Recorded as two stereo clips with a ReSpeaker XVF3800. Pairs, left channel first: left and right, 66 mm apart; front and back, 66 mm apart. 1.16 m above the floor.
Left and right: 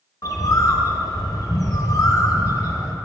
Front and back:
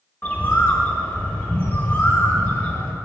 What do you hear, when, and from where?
0.2 s a bird: 60° left, 0.9 m